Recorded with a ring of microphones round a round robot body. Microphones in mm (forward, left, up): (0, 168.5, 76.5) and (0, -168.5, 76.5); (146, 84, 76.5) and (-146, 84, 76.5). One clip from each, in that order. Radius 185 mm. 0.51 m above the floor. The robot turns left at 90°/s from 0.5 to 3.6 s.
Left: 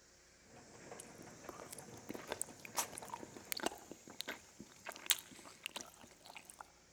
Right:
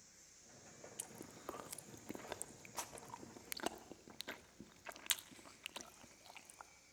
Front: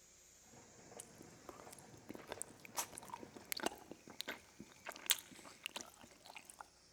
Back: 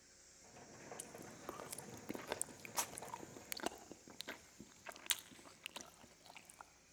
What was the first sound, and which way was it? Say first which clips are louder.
Chewing: right 1 dB, back 5 dB; 95° right.